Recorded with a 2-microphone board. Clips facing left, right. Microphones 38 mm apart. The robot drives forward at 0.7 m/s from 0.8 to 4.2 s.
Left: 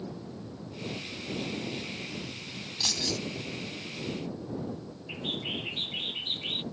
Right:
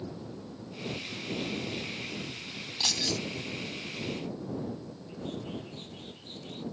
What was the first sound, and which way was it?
Keys jangling, 20° right (ahead or behind).